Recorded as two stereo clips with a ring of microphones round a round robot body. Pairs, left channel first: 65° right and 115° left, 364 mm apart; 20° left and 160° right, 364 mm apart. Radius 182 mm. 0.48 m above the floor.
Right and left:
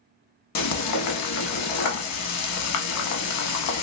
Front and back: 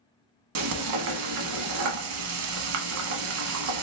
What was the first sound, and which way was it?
Frying, 110° right.